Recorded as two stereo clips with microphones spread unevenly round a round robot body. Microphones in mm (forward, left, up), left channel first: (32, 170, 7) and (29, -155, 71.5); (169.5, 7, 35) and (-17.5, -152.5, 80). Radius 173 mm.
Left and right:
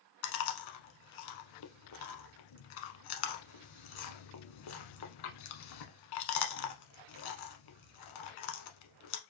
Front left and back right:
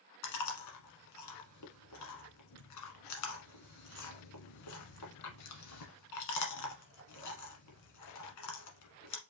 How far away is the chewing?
About 1.0 m.